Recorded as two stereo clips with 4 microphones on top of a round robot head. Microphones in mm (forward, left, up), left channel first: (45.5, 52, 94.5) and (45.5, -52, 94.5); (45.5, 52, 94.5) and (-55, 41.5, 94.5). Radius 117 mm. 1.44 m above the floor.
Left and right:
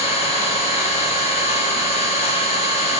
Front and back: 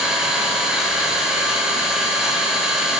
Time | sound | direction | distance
0.0 | an engine running | 100° left | 1.4 m